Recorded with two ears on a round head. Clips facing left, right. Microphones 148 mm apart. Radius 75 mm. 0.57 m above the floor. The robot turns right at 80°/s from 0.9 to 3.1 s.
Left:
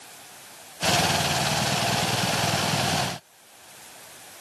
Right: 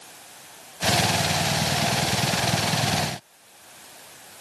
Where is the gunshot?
I don't hear a gunshot.